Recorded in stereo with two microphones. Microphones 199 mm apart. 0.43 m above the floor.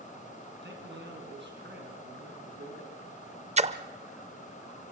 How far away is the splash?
About 0.7 m.